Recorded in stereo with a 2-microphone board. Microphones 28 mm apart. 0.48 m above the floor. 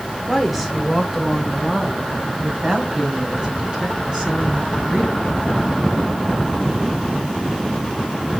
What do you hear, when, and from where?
0.3 s a woman speaking: centre (ahead or behind), 1.6 m; by 5.6 s 30° right (ahead or behind), 7.5 m